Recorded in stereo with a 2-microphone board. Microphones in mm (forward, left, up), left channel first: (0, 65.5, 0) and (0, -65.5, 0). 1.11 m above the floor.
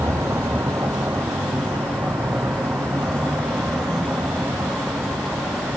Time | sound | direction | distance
0.0 | a vehicle | 20° right (ahead or behind) | ?